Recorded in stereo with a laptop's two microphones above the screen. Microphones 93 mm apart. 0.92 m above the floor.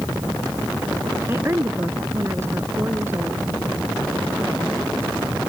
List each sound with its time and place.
1.3 s a woman speaking: 25° right (ahead or behind)